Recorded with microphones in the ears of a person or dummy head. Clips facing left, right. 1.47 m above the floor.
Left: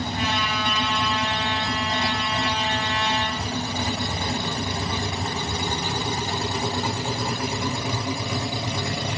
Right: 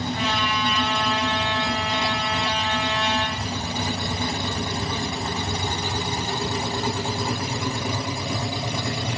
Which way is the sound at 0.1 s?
25° right (ahead or behind).